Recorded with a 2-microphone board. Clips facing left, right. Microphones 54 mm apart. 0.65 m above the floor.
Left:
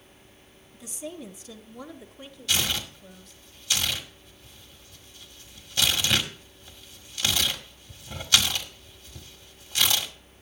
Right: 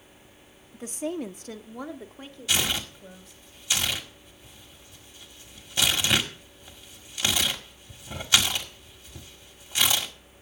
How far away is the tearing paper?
About 1.7 m.